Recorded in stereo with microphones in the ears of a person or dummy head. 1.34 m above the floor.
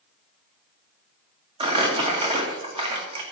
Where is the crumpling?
30° right (ahead or behind), 1.9 m.